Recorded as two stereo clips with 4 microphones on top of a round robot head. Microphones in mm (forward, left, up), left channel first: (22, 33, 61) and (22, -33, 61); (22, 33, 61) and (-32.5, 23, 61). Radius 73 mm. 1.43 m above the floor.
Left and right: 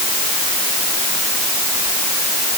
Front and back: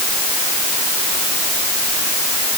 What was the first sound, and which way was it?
Only background noise.